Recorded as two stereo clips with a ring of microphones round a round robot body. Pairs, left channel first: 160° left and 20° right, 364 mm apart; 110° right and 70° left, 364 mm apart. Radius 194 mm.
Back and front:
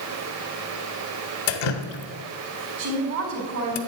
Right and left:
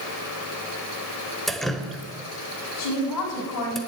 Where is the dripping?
160° left, 1.1 m.